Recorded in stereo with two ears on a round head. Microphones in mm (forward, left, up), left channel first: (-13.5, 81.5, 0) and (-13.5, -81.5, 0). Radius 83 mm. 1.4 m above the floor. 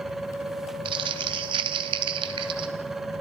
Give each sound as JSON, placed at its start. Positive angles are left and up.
{"t": 0.8, "sound": "crumpling", "side_deg": -25, "distance_m": 1.9}